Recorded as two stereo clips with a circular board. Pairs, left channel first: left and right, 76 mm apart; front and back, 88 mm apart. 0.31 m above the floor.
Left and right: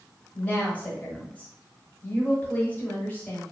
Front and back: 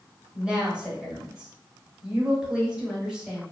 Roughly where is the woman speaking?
Behind left.